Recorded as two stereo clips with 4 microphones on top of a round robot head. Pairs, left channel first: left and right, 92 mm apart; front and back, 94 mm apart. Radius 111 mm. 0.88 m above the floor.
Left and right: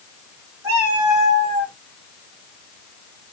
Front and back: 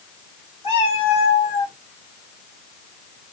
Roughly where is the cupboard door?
No cupboard door in this recording.